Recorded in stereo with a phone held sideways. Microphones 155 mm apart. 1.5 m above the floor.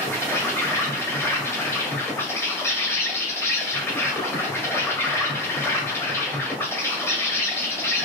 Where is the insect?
15° left (ahead or behind), 1.4 m.